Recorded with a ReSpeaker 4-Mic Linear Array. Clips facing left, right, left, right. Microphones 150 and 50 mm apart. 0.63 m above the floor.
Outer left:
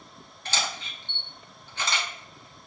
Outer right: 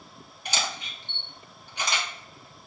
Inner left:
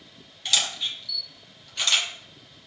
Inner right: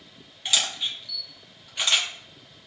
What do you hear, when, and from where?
0.5 s a camera shutter: 15° right (ahead or behind), 1.1 m